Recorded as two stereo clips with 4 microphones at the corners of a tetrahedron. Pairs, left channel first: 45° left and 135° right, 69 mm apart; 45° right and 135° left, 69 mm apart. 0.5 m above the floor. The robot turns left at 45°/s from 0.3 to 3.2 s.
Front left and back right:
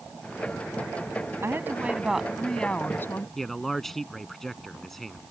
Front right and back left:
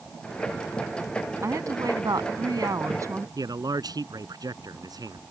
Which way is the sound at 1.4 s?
175° left.